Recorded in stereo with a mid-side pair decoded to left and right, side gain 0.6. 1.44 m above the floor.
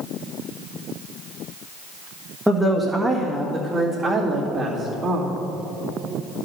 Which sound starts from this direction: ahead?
A woman speaking, at 2.5 s.